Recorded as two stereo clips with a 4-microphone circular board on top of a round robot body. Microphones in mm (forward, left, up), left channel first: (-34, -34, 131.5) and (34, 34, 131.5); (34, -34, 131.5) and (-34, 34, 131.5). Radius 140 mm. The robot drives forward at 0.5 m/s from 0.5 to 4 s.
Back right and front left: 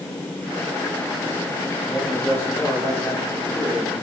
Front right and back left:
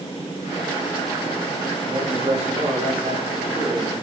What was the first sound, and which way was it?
A man speaking, 160° left.